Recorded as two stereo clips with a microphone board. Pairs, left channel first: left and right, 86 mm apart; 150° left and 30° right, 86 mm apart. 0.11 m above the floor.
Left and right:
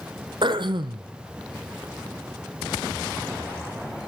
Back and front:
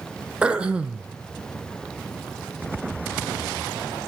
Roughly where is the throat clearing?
Right.